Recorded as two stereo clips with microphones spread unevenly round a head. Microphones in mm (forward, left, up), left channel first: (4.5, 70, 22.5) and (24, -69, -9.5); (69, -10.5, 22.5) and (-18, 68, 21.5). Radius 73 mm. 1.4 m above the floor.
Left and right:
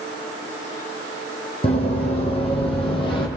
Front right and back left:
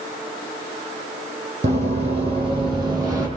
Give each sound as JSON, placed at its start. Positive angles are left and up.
{"t": 1.6, "sound": "running footsteps", "azimuth_deg": 125, "distance_m": 2.5}